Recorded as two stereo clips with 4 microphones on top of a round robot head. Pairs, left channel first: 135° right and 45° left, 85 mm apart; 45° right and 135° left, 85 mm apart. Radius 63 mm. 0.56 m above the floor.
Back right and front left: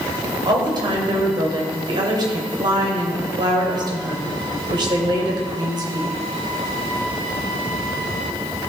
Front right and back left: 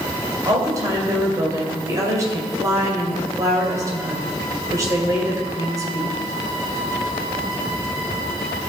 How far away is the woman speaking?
About 2 m.